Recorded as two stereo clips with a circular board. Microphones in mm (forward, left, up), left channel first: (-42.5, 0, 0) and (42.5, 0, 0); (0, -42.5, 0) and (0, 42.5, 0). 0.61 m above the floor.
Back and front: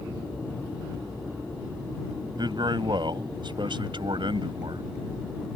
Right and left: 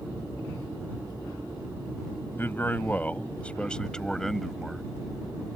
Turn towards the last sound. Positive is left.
turn(degrees=0)